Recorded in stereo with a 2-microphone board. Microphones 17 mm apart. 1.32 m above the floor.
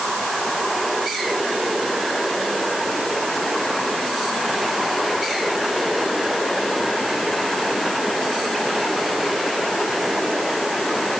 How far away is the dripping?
No dripping in this recording.